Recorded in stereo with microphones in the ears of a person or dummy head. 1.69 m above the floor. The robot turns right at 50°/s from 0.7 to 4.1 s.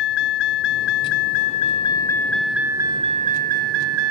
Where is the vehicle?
85° left; by 4.1 s 105° right.